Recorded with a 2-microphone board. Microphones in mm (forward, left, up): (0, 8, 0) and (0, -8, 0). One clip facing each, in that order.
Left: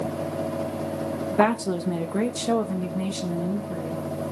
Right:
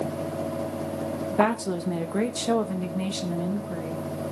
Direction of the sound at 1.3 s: 15° left (ahead or behind).